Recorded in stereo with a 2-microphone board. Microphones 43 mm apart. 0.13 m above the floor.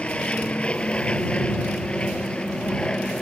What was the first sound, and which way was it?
An aircraft, 25° left (ahead or behind).